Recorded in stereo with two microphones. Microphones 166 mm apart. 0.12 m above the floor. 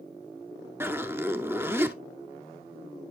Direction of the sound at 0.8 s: 15° right (ahead or behind).